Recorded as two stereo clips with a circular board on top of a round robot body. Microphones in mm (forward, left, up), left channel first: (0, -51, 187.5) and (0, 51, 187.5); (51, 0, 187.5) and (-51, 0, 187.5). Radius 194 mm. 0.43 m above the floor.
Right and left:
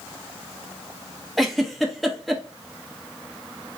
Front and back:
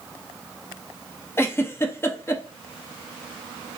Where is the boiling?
I don't hear boiling.